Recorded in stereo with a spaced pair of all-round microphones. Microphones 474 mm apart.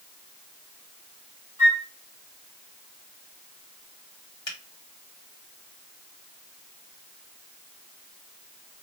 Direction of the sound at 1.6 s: 40° left (ahead or behind).